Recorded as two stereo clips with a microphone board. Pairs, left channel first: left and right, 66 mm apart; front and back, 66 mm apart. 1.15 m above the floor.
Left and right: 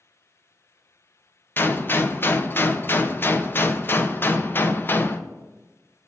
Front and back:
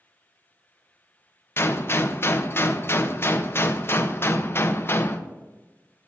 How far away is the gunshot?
About 0.5 m.